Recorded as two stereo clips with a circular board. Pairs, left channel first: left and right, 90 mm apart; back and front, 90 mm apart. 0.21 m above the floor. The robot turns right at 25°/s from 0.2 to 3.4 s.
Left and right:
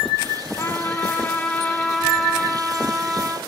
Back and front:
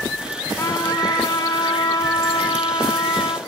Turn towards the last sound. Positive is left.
turn(degrees=-150)